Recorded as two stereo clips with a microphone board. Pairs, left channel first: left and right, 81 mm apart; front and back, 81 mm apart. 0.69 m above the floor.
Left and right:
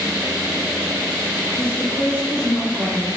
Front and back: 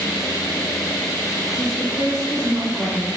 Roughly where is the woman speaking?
Behind.